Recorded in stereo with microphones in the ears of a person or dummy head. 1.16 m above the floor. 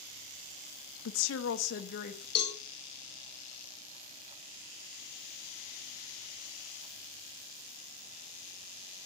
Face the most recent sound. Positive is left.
turn(degrees=35)  # may be behind; listen again after turning